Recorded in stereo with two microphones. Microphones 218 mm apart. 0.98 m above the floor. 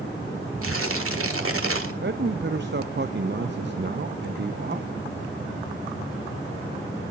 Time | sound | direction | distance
0.6 | tearing paper | 80° right | 1.6 m
2.0 | a man speaking | 55° right (ahead or behind) | 0.6 m